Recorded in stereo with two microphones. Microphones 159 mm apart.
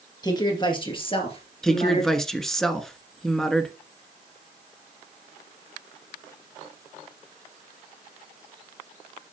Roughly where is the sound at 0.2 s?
Left.